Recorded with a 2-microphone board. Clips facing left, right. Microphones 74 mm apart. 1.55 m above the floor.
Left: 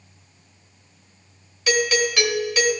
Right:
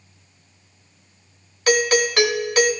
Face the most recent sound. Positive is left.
turn(degrees=-50)  # may be behind; listen again after turning